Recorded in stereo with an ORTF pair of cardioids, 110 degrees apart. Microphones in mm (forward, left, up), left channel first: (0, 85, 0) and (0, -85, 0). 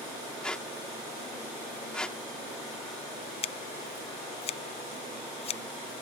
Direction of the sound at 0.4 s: 5° left.